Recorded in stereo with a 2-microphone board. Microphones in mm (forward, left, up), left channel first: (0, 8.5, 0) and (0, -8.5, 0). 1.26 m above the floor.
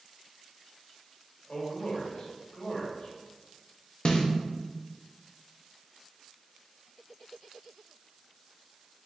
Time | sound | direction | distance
1.5 | a man speaking | 55° left (ahead or behind) | 1.8 m
4.0 | a snare drum | 55° left (ahead or behind) | 0.7 m